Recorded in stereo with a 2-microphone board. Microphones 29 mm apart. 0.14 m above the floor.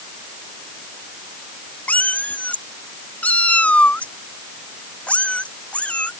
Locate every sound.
1.9 s a cat meowing: 60° left (ahead or behind); by 6.1 s 45° left (ahead or behind)